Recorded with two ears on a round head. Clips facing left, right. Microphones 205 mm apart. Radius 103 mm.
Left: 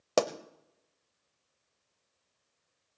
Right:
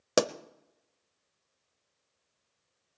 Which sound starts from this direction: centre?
A pop, at 0.2 s.